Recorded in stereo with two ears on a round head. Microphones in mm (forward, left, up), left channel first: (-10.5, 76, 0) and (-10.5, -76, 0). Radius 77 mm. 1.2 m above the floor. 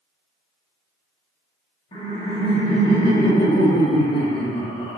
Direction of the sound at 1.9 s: 30° left (ahead or behind).